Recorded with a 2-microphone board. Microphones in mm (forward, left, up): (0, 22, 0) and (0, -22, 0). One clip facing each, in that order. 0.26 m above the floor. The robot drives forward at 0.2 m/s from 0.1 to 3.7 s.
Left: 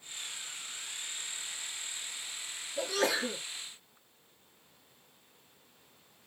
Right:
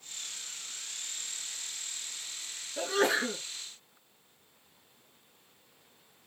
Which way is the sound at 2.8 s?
30° right (ahead or behind).